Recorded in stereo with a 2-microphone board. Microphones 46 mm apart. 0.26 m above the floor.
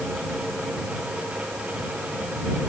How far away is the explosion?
No explosion in this recording.